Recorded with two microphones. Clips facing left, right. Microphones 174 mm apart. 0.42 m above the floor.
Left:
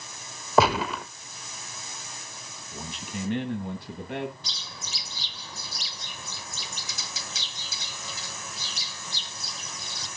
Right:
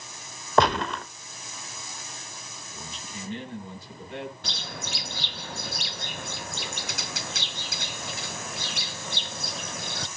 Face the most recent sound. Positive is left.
turn(degrees=-65)  # may be behind; listen again after turning